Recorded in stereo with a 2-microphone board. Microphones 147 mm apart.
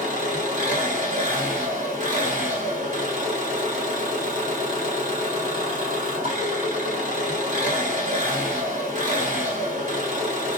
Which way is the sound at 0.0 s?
65° right (ahead or behind).